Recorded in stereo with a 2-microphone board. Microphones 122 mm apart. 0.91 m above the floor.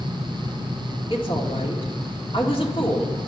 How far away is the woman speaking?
About 2.0 m.